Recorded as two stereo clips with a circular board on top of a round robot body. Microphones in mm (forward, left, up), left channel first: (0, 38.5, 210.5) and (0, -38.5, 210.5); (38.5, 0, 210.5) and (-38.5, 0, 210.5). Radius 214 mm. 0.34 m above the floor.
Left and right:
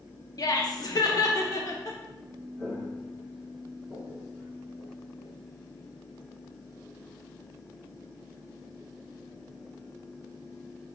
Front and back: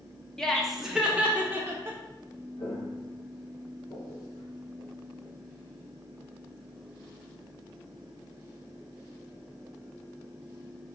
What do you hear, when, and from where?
0.4 s laughter: 80° left, 1.2 m; by 2.0 s 125° left, 1.5 m
2.6 s footsteps: straight ahead, 1.4 m; by 5.3 s 75° left, 0.9 m